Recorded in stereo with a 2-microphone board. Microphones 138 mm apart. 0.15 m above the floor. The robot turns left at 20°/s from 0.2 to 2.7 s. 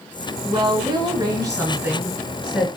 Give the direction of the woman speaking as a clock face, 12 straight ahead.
4 o'clock.